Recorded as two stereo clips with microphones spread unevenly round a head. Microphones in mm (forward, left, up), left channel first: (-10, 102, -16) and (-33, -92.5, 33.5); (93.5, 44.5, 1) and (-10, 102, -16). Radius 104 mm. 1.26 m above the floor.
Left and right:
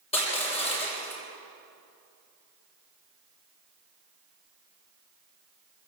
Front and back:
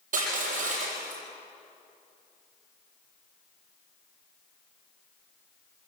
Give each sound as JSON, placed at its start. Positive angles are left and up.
{"t": 0.1, "sound": "crushing", "azimuth_deg": 150, "distance_m": 7.0}